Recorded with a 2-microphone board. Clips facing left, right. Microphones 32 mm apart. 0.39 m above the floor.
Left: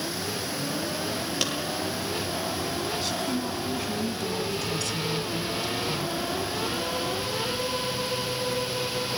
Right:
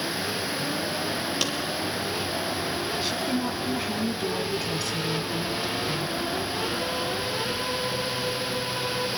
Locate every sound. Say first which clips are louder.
1.4 s a clap: even; 5° left (ahead or behind), 7 m
3.0 s a woman speaking: right 2 dB; 15° right (ahead or behind), 3.5 m